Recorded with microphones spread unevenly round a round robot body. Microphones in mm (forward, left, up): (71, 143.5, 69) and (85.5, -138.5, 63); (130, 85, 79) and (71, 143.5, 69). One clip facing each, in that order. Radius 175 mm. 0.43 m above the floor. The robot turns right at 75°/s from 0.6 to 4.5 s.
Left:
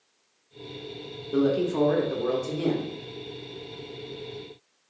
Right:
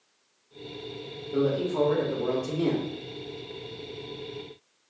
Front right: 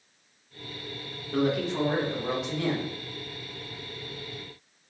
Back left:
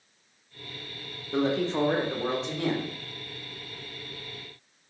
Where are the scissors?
I don't hear scissors.